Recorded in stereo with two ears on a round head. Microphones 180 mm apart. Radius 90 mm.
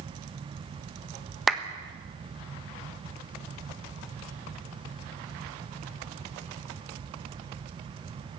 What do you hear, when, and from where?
1.5 s a clap: centre (ahead or behind), 1.4 m